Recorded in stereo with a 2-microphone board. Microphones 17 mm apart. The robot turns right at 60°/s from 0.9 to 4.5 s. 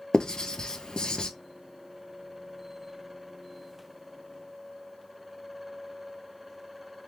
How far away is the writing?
About 0.6 m.